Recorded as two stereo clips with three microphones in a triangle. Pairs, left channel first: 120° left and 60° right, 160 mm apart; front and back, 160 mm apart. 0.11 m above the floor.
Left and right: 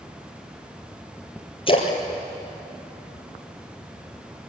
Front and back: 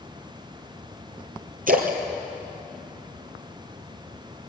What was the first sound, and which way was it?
A splash, 170° left.